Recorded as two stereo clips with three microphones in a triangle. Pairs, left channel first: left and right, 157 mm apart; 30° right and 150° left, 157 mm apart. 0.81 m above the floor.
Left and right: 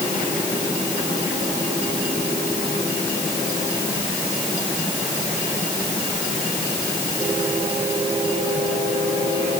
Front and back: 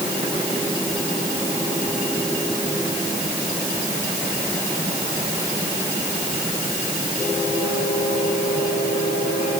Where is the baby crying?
I don't hear a baby crying.